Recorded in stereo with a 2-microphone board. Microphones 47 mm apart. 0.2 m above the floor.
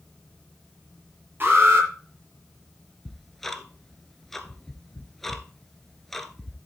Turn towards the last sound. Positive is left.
turn(degrees=5)  # may be behind; listen again after turning